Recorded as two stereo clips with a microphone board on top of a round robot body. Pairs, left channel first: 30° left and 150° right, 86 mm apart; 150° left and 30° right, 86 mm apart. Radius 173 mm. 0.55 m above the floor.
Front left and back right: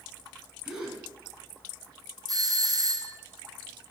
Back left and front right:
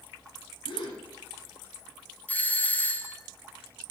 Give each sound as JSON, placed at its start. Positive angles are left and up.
{"t": 0.7, "sound": "a gasp", "azimuth_deg": 125, "distance_m": 2.5}
{"t": 2.3, "sound": "a doorbell", "azimuth_deg": -145, "distance_m": 1.4}